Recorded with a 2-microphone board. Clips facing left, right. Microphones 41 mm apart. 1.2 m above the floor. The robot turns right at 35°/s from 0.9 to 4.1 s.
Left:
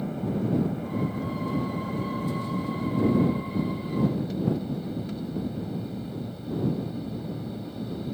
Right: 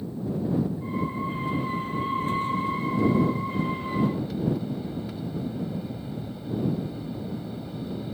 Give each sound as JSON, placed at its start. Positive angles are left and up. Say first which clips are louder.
{"t": 0.0, "sound": "an aircraft", "louder": "left 1 dB", "azimuth_deg": 75}